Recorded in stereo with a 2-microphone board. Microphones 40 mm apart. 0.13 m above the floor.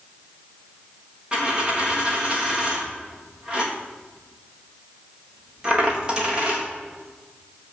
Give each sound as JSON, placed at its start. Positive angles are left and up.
{"t": 1.3, "sound": "a dropped coin", "side_deg": -20, "distance_m": 3.5}